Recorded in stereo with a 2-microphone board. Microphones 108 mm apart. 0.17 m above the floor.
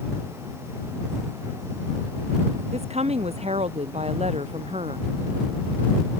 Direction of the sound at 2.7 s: 80° right.